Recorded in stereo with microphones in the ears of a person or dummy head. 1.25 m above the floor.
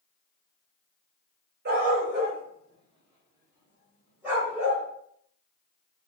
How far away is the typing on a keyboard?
No typing on a keyboard in this recording.